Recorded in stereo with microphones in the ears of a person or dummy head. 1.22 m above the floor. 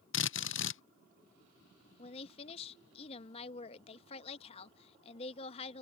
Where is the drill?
65° left (ahead or behind).